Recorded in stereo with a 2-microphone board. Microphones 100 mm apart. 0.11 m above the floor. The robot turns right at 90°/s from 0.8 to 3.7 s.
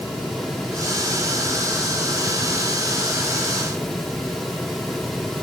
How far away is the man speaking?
I don't hear a man speaking.